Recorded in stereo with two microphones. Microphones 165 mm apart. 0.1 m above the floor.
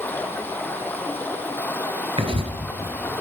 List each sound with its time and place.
0.0 s running water: 10° left (ahead or behind), 1.1 m
2.2 s writing: 35° right (ahead or behind), 1.2 m